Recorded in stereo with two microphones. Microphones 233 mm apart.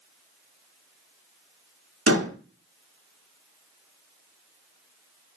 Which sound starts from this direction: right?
A door slam, at 2.1 s.